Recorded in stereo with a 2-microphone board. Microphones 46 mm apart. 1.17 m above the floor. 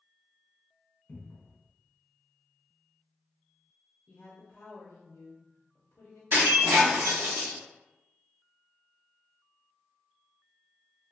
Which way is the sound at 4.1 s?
60° left (ahead or behind).